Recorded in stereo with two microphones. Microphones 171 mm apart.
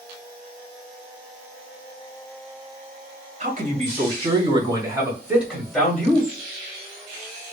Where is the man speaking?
50° right (ahead or behind), 1.8 m; by 6.3 s 10° left (ahead or behind), 1.8 m.